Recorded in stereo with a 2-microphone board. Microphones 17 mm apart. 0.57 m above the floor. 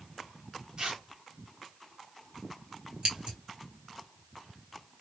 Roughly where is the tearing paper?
Right.